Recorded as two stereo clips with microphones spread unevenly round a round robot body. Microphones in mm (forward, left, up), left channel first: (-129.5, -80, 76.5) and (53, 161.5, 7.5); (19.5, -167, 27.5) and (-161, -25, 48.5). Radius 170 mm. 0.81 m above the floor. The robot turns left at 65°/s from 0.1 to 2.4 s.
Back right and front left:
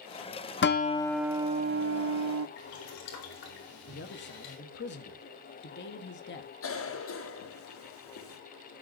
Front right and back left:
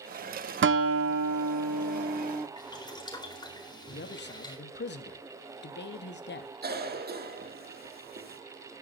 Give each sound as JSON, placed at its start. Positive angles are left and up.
{"t": 0.6, "sound": "a guitar", "azimuth_deg": 175, "distance_m": 1.2}
{"t": 2.6, "sound": "boiling", "azimuth_deg": -110, "distance_m": 4.0}
{"t": 3.9, "sound": "a man speaking", "azimuth_deg": -65, "distance_m": 1.3}
{"t": 6.6, "sound": "a cough", "azimuth_deg": -175, "distance_m": 2.5}